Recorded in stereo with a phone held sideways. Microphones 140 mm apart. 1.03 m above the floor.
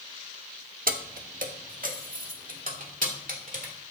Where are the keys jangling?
75° right (ahead or behind), 0.8 m; by 3.7 s 65° right (ahead or behind), 3 m.